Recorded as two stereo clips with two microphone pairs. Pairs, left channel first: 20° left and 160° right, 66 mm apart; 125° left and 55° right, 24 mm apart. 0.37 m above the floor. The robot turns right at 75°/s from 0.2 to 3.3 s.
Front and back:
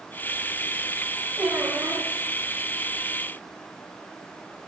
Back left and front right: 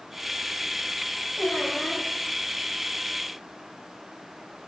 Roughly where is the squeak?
Behind left.